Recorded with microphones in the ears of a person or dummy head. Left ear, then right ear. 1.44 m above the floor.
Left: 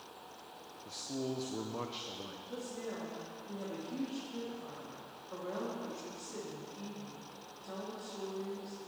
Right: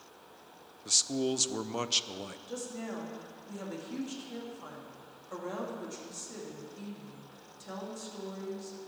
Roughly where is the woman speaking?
Right.